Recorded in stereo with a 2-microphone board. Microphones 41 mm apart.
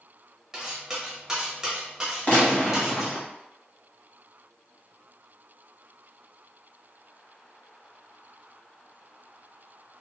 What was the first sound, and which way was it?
Cutlery clinking, 15° right (ahead or behind).